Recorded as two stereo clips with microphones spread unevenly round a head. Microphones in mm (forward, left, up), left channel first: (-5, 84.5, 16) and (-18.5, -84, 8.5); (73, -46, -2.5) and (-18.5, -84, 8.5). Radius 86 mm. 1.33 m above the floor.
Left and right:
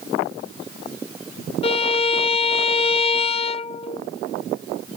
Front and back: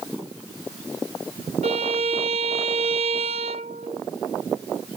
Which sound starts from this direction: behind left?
A violin, at 1.6 s.